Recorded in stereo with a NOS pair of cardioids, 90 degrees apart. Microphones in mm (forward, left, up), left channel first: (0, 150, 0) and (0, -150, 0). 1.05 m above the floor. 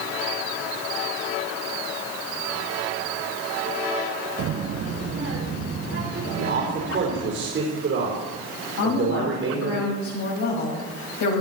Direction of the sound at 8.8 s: 70° left.